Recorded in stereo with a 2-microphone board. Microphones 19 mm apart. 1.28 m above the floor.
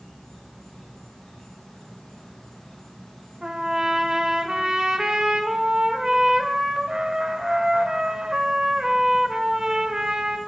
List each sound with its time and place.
0.0 s an insect: 30° left (ahead or behind), 3 m
3.4 s a trumpet: 40° right (ahead or behind), 1.2 m